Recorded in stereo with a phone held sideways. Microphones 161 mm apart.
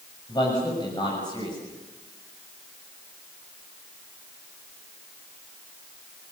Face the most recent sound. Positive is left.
turn(degrees=30)  # may be behind; listen again after turning